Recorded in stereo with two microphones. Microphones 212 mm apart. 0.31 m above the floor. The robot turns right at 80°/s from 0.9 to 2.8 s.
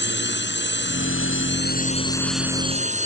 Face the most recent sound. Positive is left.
turn(degrees=-145)